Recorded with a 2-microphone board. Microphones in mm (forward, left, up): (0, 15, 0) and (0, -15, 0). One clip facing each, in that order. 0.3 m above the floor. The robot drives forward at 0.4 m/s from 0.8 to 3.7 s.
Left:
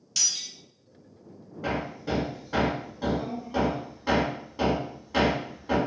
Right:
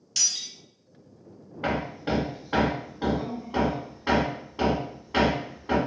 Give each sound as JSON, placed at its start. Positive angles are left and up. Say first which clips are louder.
{"t": 0.2, "sound": "breaking glass", "louder": "even", "side_deg": -5, "distance_m": 1.7}
{"t": 1.6, "sound": "hammering", "louder": "right 2 dB", "side_deg": -50, "distance_m": 0.5}